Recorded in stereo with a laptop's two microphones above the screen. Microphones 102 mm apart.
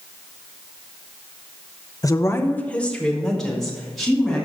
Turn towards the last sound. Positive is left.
turn(degrees=0)  # may be behind; listen again after turning